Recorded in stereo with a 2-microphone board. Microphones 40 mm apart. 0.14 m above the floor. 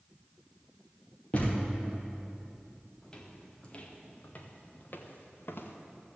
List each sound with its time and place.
1.3 s a thud: 30° left (ahead or behind), 4.5 m
3.0 s footsteps: 15° left (ahead or behind), 2.5 m; by 5.8 s 65° left (ahead or behind), 2 m